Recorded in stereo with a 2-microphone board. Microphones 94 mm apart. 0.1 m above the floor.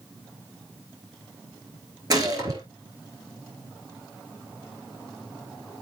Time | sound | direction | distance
2.1 | a gunshot | 45° right (ahead or behind) | 3 m